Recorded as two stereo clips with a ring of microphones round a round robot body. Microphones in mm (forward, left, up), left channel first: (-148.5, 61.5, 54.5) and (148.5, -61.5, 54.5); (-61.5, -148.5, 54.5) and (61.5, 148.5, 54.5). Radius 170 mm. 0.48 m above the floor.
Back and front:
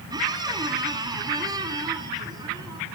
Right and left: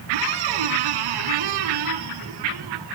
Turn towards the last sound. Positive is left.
turn(degrees=55)